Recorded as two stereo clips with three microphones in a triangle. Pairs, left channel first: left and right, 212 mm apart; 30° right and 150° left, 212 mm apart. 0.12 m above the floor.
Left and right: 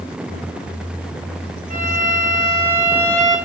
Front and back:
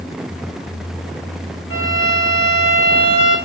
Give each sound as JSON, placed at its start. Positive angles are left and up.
{"t": 1.7, "sound": "a violin", "azimuth_deg": -35, "distance_m": 3.0}